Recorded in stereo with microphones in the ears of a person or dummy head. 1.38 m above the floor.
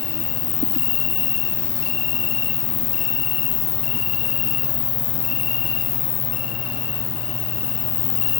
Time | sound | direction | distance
0.0 | an insect | 65° left (ahead or behind) | 0.7 m